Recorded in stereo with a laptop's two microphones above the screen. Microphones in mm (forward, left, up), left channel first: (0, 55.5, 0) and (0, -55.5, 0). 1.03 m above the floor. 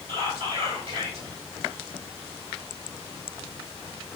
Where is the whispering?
60° right (ahead or behind), 2.5 m.